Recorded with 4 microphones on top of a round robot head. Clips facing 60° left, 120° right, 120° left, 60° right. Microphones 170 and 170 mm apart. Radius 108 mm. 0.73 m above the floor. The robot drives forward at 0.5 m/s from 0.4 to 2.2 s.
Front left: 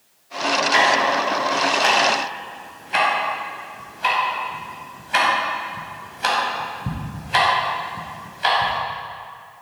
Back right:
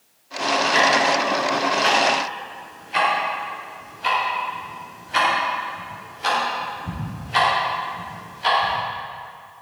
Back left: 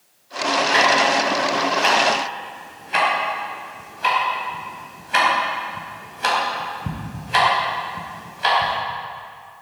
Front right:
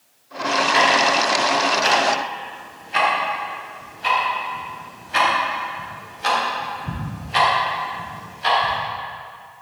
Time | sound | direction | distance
0.7 | ticking | 80° left | 5 m